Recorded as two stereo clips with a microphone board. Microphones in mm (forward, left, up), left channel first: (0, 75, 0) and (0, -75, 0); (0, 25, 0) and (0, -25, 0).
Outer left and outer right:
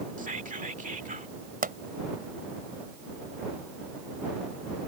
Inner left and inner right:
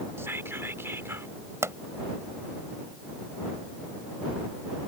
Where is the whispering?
60° right (ahead or behind).